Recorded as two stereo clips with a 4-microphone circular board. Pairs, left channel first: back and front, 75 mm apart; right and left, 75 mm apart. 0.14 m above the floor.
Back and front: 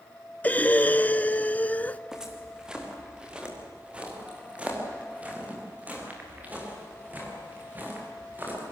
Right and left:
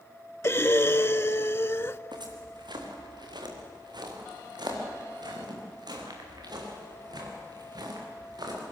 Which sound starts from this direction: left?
Footsteps, at 2.1 s.